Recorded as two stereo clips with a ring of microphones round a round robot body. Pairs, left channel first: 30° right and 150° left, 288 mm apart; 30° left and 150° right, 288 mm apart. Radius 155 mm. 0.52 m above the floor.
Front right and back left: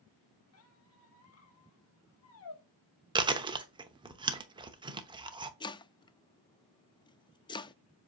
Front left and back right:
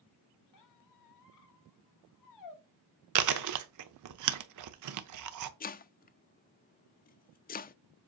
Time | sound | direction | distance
0.5 | a squeak | 10° left | 1.0 m
3.1 | chewing | 135° right | 0.8 m
5.6 | chopping | 30° left | 0.5 m